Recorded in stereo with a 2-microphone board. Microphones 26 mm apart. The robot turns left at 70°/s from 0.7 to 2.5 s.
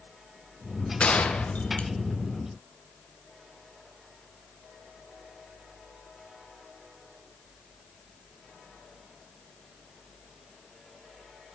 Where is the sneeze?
I don't hear a sneeze.